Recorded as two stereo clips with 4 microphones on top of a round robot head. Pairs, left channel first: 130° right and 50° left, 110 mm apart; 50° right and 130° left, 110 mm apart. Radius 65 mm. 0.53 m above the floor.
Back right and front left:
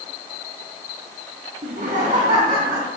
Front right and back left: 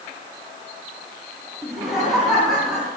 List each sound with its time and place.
1.6 s laughter: 40° left, 4.5 m; by 2.9 s 45° left, 6 m